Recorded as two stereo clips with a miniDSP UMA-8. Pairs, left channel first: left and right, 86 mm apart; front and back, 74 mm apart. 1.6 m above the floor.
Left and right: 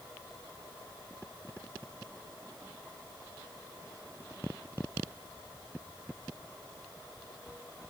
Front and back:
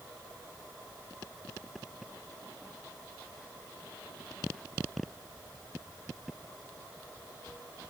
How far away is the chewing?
No chewing in this recording.